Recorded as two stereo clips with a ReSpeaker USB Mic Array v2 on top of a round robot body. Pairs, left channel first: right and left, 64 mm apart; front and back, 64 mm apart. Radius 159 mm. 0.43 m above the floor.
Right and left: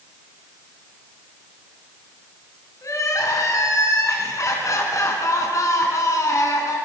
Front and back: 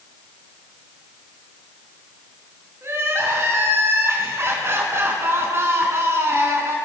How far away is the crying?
About 4 m.